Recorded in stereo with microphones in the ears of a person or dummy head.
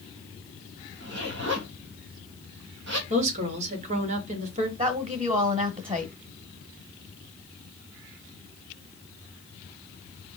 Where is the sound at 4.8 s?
35° right (ahead or behind), 0.8 m.